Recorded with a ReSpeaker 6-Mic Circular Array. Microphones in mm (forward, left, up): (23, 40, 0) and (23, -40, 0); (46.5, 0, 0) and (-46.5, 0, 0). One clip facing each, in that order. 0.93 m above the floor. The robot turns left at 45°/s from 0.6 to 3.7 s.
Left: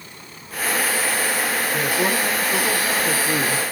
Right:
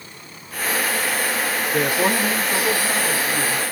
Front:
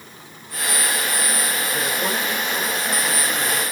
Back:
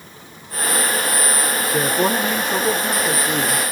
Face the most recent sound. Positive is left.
turn(degrees=120)